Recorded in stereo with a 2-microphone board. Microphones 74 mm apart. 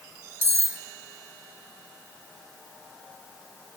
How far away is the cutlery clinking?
About 1.0 m.